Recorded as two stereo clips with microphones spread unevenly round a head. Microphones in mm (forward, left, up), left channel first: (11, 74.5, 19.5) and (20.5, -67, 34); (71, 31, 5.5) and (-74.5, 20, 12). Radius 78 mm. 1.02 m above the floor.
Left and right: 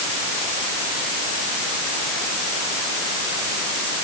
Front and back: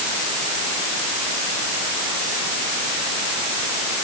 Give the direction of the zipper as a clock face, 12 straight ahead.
No zipper in this recording.